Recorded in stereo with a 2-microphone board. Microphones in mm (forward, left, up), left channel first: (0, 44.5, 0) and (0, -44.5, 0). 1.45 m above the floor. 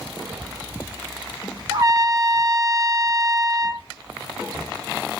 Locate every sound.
1.7 s a trumpet: 40° right (ahead or behind), 1.3 m